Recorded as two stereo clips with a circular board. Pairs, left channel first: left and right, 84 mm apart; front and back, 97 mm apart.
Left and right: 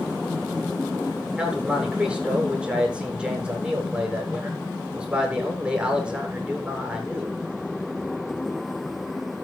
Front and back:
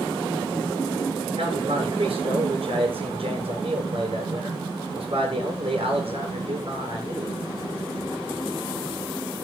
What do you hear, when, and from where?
1.4 s a man speaking: 170° right, 7 m